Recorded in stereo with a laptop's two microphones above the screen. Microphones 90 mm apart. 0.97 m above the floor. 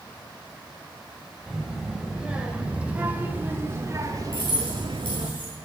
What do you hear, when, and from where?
1.5 s a child speaking: 5° right (ahead or behind), 5 m; by 5.3 s 80° right, 1.8 m
4.3 s keys jangling: 75° left (ahead or behind), 9.5 m